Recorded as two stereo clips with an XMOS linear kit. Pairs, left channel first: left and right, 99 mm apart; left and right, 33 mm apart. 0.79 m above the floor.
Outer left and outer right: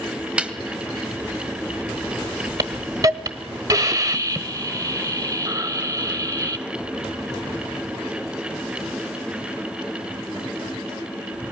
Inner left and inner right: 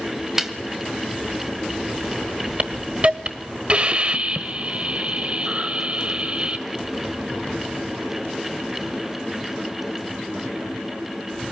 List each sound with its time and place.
0.4 s a snare drum: 10° right (ahead or behind), 1.3 m
2.6 s a hiss: 35° right (ahead or behind), 1.1 m